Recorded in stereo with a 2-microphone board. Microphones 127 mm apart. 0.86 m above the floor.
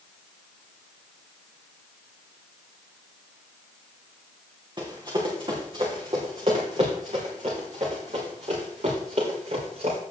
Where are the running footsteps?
35° right (ahead or behind), 3.5 m; by 10.0 s 70° right (ahead or behind), 5 m.